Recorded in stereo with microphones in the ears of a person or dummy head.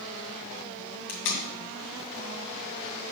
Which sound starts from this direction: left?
Tape being pulled, at 1.1 s.